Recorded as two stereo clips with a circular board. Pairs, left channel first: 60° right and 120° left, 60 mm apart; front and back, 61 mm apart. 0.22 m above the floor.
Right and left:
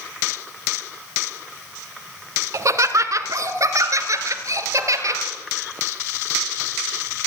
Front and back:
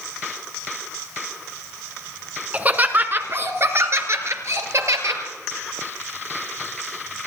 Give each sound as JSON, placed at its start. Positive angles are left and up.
{"t": 2.5, "sound": "laughter", "azimuth_deg": 120, "distance_m": 2.0}